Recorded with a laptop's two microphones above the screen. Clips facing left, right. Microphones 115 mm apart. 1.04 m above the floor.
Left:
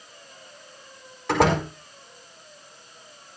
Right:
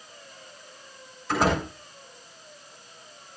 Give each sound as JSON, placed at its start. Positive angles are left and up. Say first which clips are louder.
{"t": 1.3, "sound": "a door slam", "louder": "left 3 dB", "side_deg": 90, "distance_m": 4.5}